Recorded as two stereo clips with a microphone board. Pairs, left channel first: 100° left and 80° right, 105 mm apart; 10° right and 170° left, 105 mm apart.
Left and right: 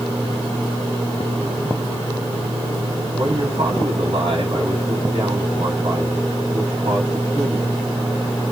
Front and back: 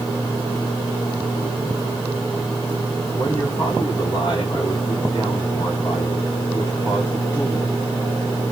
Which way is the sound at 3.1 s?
50° right.